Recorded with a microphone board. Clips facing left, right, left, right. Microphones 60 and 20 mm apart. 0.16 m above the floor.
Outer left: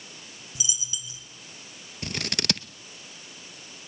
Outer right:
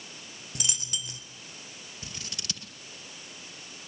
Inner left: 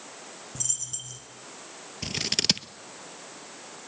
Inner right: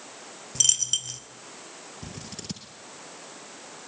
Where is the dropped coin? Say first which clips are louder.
Outer right 1 dB, inner right 12 dB; 65° right (ahead or behind), 1.3 m.